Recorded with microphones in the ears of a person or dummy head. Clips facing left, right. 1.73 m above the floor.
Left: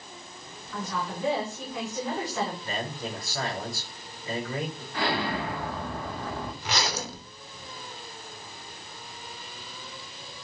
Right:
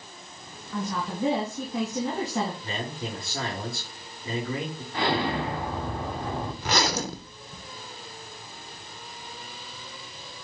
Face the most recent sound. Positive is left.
turn(degrees=-50)  # may be behind; listen again after turning